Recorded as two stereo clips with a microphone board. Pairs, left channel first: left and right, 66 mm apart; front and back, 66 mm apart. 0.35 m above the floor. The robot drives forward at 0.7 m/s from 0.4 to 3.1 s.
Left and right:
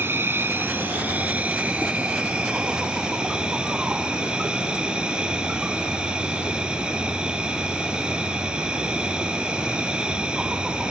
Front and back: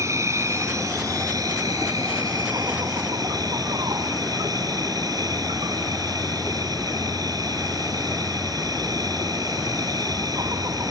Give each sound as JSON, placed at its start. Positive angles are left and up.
{"t": 0.0, "sound": "an insect", "azimuth_deg": -145}